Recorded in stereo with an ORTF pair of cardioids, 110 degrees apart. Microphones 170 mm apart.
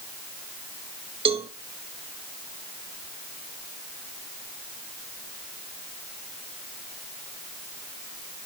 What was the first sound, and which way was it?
A cowbell, 30° right.